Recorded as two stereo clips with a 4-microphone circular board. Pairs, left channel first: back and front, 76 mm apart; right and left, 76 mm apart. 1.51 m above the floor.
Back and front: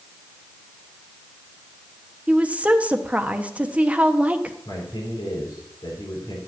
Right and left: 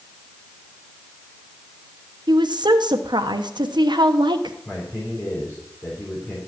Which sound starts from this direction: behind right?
A man speaking, at 4.7 s.